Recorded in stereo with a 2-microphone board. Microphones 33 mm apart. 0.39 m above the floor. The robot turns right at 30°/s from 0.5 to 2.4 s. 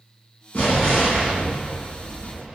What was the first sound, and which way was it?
An explosion, 105° left.